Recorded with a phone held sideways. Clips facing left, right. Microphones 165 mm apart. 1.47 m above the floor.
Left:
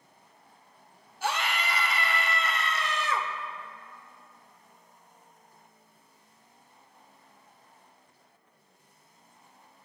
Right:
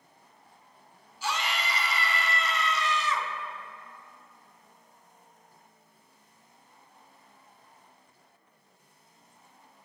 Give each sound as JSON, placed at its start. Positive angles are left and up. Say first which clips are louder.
{"t": 1.2, "sound": "a scream", "louder": "left 2 dB", "side_deg": 55, "distance_m": 0.8}